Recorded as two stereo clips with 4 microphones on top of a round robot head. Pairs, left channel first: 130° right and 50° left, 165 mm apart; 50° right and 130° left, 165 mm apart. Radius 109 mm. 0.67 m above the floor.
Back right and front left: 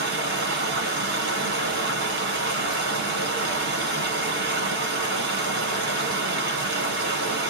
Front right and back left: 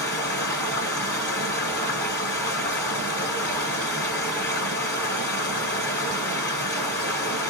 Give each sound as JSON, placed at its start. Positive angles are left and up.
{"t": 0.0, "sound": "running water", "azimuth_deg": 25, "distance_m": 1.5}